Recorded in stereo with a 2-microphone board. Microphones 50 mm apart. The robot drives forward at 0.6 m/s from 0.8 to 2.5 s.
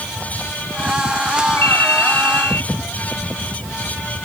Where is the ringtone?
50° left (ahead or behind); by 2.7 s 45° left (ahead or behind).